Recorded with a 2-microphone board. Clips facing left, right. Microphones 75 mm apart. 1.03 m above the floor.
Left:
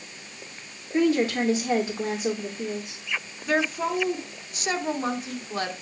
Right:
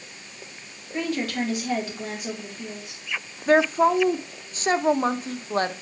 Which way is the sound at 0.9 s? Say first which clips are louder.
Left 5 dB; 25° left (ahead or behind).